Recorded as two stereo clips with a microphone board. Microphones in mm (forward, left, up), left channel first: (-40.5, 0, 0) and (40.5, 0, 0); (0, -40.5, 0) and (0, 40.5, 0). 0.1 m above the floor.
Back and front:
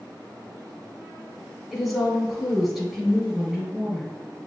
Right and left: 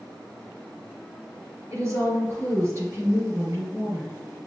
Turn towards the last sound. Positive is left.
turn(degrees=80)